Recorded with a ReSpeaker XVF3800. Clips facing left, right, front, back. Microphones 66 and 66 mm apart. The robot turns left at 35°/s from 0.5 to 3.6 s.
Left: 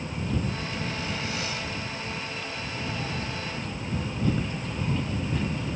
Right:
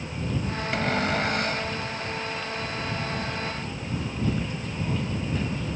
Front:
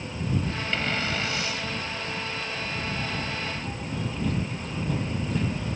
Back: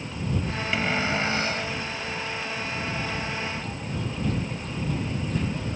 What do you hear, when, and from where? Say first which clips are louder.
0.7 s a cupboard door: right 7 dB, back 4 dB; 100° right; by 1.7 s 135° right